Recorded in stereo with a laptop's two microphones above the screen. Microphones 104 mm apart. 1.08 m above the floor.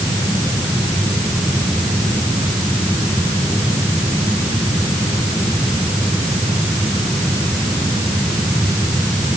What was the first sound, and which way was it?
Only background noise.